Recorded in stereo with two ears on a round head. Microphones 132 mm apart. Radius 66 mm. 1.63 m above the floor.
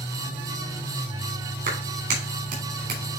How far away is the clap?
About 4.5 m.